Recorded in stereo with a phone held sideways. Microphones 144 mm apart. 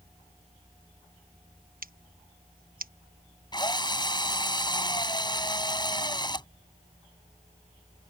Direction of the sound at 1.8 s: 85° right.